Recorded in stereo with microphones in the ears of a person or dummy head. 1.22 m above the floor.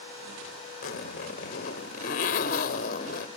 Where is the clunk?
No clunk in this recording.